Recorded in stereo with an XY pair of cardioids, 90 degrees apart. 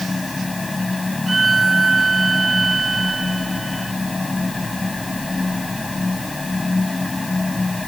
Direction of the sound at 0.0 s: 20° left.